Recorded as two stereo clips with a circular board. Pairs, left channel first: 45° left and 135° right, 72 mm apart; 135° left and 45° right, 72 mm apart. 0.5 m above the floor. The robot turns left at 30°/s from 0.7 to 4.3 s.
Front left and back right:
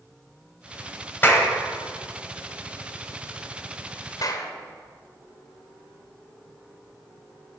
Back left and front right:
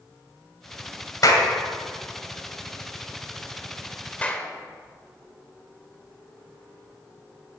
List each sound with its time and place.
1.2 s a clap: 100° left, 1.9 m; by 1.5 s 95° left, 1.9 m
4.2 s a clap: 65° left, 1.1 m; by 4.5 s 60° left, 1.1 m